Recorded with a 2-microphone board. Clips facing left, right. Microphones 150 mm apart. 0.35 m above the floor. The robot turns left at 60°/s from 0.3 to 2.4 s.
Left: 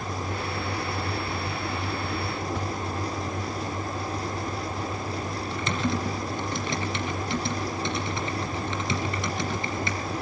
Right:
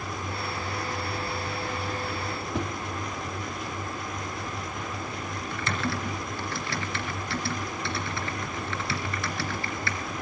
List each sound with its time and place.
2.5 s a whoosh: 20° right (ahead or behind), 1.2 m
5.5 s typing on a keyboard: 20° left (ahead or behind), 2.5 m